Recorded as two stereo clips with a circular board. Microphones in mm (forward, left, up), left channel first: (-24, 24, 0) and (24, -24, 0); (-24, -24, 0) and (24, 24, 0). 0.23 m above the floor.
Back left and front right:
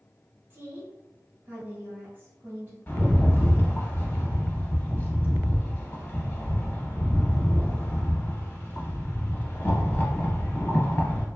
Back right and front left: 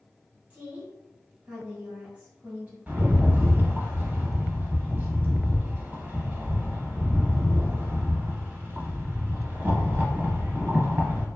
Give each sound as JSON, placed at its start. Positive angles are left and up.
{"t": 0.5, "sound": "a woman speaking", "azimuth_deg": -15, "distance_m": 1.4}
{"t": 2.9, "sound": "a rattle", "azimuth_deg": 90, "distance_m": 0.6}